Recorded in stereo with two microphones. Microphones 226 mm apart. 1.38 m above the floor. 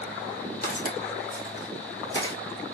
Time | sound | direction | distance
0.6 | footsteps | 40° left (ahead or behind) | 1.7 m